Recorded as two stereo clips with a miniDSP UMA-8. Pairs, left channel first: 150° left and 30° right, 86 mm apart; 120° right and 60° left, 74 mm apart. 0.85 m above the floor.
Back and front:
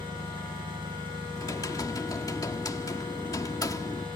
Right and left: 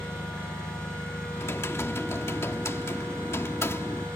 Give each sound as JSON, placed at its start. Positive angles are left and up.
{"t": 0.0, "sound": "an engine running", "azimuth_deg": -45}
{"t": 1.4, "sound": "typing on a keyboard", "azimuth_deg": -170}